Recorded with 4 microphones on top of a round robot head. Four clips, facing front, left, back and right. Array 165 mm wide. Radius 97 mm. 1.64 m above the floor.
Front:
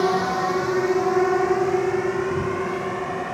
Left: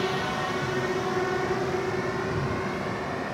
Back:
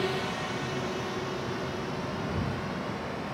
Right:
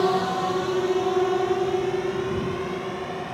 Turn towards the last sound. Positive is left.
turn(degrees=-25)